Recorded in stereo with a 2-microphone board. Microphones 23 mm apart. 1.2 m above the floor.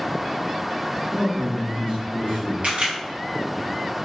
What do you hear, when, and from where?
1.1 s a man speaking: 75° right (ahead or behind), 2.0 m
2.6 s a camera shutter: 70° right (ahead or behind), 1.1 m